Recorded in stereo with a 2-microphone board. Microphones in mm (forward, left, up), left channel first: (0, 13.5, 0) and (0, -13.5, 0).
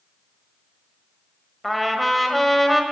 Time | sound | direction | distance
1.6 | a trumpet | centre (ahead or behind) | 1.2 m